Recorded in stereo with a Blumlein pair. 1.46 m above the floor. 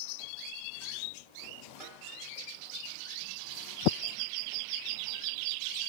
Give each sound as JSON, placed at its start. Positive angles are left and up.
{"t": 1.8, "sound": "a snare drum", "azimuth_deg": -5, "distance_m": 4.5}